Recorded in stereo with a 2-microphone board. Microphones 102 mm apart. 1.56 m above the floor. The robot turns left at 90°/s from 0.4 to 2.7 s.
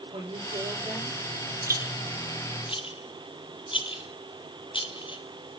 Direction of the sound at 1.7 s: 35° right (ahead or behind).